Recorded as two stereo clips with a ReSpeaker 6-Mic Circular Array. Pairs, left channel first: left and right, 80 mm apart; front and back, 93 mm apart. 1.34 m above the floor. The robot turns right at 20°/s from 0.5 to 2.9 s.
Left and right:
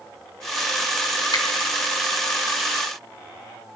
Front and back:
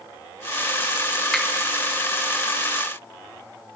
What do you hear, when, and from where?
1.3 s a finger snap: 75° left, 2.5 m; by 1.5 s 80° left, 2.5 m